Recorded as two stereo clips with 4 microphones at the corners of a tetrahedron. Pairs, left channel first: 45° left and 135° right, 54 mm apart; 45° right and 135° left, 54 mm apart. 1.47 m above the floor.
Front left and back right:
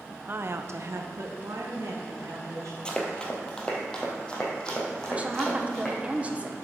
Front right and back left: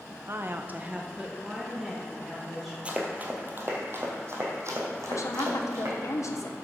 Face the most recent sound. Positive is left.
turn(degrees=-70)